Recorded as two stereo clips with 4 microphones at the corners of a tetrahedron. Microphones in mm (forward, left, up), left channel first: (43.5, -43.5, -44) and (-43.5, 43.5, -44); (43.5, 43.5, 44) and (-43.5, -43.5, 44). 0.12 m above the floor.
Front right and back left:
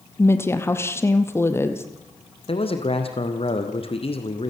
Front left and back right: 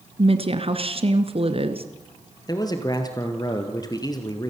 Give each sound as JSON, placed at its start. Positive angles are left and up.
{"t": 0.2, "sound": "a woman speaking", "azimuth_deg": -110, "distance_m": 2.0}
{"t": 2.5, "sound": "a man speaking", "azimuth_deg": -10, "distance_m": 3.0}